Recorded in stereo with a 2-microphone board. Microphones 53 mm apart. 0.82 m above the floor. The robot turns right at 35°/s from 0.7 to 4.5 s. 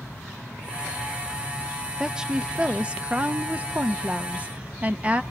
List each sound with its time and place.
2.0 s a woman speaking: 10° right (ahead or behind), 0.8 m; by 5.2 s 25° right (ahead or behind), 0.8 m